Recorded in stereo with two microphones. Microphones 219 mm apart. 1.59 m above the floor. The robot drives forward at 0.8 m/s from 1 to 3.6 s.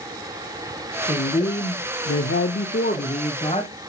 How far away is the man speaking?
About 1.1 m.